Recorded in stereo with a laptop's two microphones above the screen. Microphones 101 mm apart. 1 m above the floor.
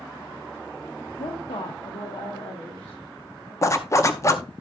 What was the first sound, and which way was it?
A woman speaking, 80° left.